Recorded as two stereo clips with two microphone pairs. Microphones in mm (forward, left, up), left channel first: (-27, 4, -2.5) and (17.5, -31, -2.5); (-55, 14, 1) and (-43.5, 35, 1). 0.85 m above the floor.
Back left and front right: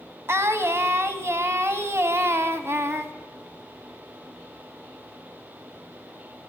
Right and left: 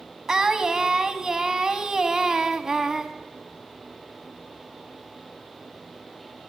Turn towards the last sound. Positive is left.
turn(degrees=-10)